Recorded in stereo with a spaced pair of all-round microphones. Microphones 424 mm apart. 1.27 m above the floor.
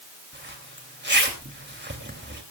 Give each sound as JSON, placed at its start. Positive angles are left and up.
{"t": 0.3, "sound": "a zipper", "side_deg": -25, "distance_m": 2.5}